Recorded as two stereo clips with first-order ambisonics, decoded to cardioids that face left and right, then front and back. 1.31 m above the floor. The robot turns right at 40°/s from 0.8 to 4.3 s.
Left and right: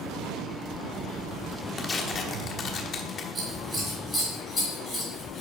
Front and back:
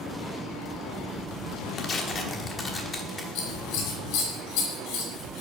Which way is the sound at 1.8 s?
25° left.